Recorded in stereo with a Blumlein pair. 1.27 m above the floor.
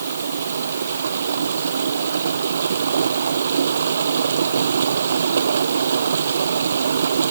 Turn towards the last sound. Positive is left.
turn(degrees=-70)